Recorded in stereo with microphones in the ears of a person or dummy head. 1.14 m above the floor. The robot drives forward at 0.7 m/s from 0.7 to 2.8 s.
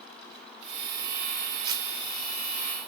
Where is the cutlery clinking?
25° right (ahead or behind), 0.6 m; by 1.9 s 20° right (ahead or behind), 0.7 m.